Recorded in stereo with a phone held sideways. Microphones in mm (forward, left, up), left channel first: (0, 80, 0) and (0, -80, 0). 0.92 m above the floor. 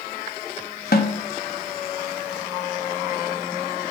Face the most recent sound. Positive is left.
turn(degrees=65)  # may be behind; listen again after turning